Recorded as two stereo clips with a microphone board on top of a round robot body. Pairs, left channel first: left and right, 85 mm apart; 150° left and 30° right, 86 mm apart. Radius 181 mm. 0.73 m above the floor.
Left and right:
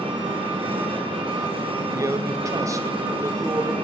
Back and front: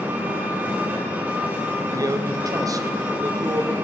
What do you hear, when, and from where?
0.0 s an engine running: 100° right, 2 m
1.9 s a man speaking: 55° right, 1.4 m